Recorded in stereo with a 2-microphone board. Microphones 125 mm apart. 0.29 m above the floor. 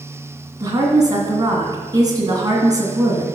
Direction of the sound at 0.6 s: 30° right (ahead or behind).